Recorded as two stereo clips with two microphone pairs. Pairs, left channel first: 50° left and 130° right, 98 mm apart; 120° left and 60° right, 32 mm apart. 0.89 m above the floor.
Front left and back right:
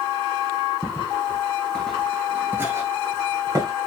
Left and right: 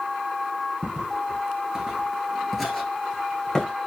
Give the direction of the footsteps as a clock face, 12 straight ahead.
12 o'clock.